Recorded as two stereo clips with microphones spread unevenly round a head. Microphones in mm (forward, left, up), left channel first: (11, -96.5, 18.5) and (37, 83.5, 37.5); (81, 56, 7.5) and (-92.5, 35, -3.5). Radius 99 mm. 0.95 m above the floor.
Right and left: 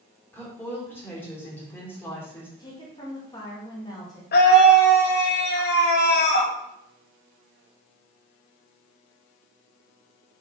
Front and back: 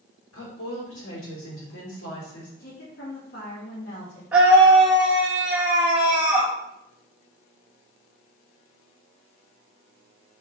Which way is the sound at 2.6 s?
35° right.